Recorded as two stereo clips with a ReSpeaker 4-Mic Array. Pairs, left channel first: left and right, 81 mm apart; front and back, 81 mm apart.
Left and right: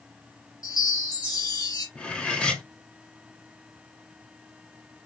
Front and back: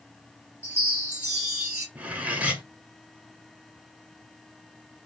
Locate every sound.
0.6 s a chime: 110° left, 2.5 m
1.9 s cutlery clinking: 145° left, 0.8 m